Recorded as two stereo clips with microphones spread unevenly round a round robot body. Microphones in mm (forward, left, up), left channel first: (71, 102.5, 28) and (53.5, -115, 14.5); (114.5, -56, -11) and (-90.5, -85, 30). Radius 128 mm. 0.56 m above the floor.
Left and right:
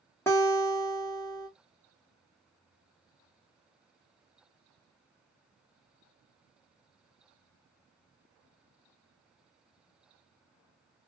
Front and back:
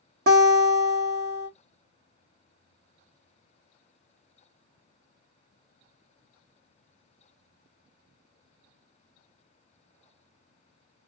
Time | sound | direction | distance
0.3 | a guitar | 165° left | 1.1 m